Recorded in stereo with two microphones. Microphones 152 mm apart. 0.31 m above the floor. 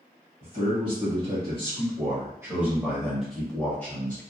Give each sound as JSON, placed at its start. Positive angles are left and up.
{"t": 0.4, "sound": "a man speaking", "side_deg": -45, "distance_m": 1.5}